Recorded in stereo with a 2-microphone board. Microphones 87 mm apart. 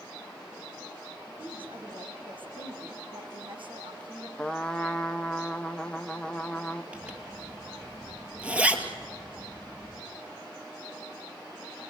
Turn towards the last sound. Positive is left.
turn(degrees=-15)  # may be behind; listen again after turning